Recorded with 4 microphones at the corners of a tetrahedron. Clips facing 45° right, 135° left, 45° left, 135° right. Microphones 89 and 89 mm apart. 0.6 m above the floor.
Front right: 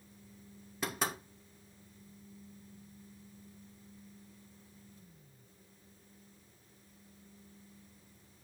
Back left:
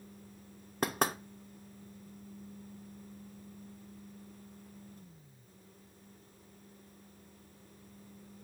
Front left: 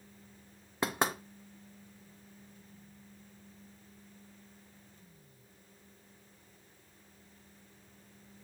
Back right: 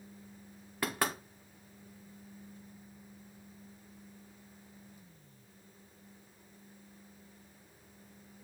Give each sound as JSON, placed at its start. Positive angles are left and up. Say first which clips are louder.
{"t": 0.8, "sound": "knocking", "louder": "back left 5 dB, front left 2 dB", "azimuth_deg": 110, "distance_m": 0.7}